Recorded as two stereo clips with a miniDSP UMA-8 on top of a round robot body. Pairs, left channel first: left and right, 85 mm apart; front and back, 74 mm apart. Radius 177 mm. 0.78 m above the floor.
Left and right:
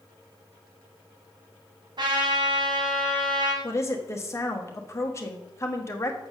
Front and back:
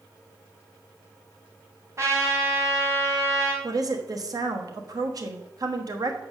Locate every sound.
2.0 s a trumpet: 130° right, 2 m
3.6 s a woman speaking: 145° left, 1.3 m